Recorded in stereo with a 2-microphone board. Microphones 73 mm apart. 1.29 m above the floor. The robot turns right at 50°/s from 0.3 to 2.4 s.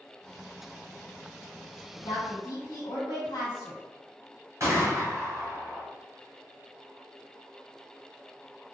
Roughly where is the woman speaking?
Left.